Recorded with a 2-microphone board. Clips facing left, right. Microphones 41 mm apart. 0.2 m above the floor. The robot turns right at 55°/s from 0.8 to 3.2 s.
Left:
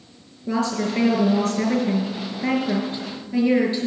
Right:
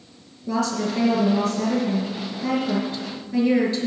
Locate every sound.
0.5 s a woman speaking: 30° left, 4.5 m; by 3.9 s 165° left, 4.5 m